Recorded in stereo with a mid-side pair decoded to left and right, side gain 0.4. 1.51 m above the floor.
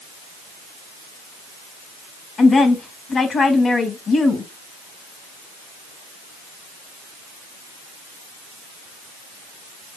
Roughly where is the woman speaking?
Ahead left.